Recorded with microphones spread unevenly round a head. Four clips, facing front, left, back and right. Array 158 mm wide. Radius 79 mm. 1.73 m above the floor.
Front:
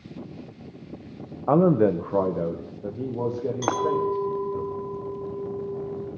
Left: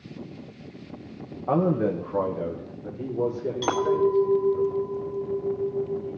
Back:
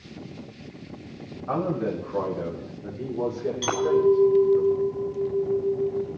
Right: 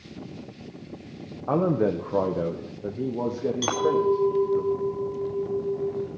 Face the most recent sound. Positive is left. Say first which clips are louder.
# left 1 dB, back 4 dB
turn(degrees=10)